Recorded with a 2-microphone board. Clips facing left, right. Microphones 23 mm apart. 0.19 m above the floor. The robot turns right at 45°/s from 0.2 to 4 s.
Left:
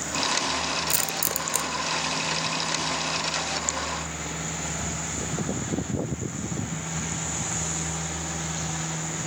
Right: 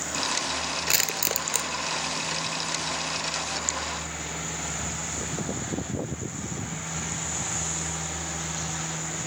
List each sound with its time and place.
0.9 s crushing: 40° right (ahead or behind); by 1.7 s 5° right (ahead or behind)